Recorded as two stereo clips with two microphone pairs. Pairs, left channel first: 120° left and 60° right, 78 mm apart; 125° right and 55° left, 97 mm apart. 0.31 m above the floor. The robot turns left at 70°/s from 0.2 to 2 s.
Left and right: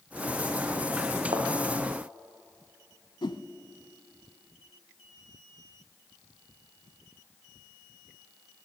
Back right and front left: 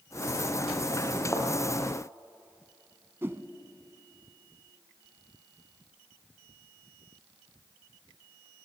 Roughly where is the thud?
Ahead right.